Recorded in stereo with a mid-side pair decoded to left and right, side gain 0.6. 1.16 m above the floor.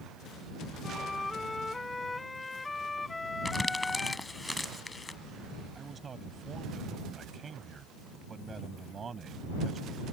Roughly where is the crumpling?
Ahead.